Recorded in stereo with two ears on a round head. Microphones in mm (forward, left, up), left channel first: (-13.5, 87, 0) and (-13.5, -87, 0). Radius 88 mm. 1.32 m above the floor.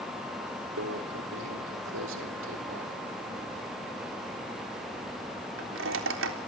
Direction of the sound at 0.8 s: 80° right.